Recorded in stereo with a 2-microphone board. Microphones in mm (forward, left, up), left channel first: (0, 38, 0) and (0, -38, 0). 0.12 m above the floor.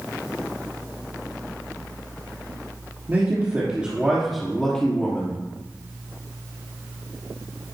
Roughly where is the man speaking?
Right.